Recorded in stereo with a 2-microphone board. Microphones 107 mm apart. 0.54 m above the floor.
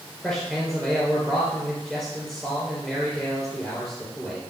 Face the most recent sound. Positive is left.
turn(degrees=10)  # may be behind; listen again after turning